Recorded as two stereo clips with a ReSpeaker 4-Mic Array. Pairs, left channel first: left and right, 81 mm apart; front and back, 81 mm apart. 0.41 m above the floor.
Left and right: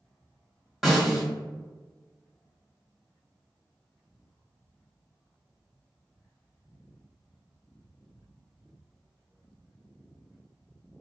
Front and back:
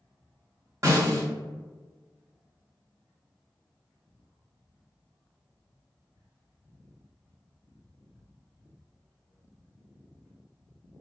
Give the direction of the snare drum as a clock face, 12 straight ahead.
6 o'clock.